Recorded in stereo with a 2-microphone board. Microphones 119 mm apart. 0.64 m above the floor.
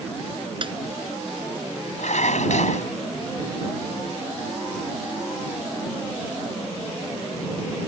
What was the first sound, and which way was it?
A snare drum, 45° right (ahead or behind).